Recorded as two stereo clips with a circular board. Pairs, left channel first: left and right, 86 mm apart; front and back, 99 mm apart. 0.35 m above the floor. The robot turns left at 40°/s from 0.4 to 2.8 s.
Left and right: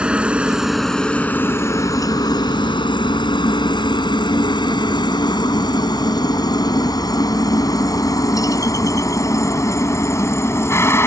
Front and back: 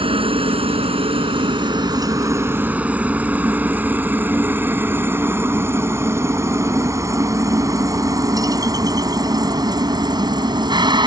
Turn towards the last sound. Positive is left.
turn(degrees=150)